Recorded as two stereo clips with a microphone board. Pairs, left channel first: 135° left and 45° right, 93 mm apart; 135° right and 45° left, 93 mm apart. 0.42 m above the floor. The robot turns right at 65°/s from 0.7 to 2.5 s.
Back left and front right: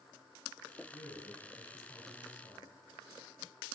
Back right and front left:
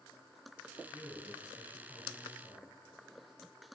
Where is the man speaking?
140° left, 3.5 m; by 2.7 s 115° right, 3.5 m.